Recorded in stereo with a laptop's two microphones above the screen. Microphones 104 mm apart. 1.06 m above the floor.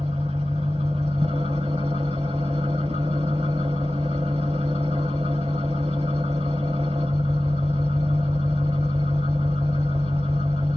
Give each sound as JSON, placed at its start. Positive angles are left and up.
{"t": 0.0, "sound": "an engine running", "side_deg": -85, "distance_m": 3.5}